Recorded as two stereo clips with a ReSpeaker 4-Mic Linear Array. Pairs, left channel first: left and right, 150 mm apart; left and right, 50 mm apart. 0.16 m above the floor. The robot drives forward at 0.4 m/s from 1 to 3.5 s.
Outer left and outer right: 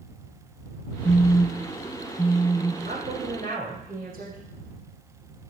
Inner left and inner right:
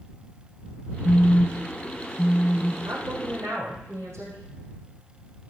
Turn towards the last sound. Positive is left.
turn(degrees=-65)  # may be behind; listen again after turning